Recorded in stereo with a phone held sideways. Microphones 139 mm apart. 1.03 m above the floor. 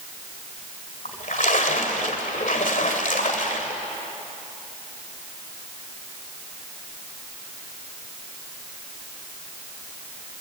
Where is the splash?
70° left (ahead or behind), 2 m.